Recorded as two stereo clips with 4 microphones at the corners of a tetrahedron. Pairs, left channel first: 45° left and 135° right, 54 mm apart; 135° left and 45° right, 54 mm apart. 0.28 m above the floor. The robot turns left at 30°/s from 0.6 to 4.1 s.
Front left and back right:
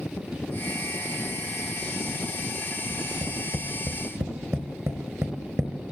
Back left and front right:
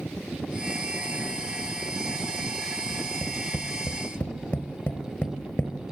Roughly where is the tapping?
Behind right.